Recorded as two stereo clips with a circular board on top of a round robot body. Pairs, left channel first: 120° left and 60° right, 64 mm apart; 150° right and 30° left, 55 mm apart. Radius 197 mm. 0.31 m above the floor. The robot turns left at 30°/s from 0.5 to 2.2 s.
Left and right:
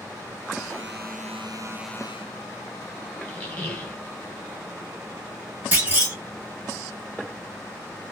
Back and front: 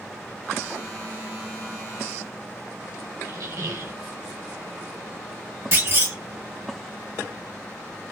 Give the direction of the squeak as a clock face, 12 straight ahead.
10 o'clock.